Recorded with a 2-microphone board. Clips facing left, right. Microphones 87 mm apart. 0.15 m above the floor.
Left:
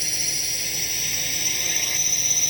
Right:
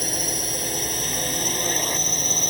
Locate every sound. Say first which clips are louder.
0.0 s a drone: right 8 dB; 40° right (ahead or behind)